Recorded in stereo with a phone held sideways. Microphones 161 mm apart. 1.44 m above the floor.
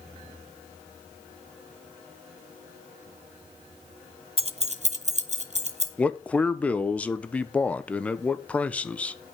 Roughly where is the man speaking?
Centre.